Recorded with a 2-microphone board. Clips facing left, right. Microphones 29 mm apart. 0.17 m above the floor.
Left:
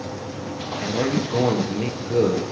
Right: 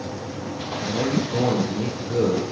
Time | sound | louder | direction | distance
0.8 | a man speaking | left 1 dB | 40° left (ahead or behind) | 2.5 m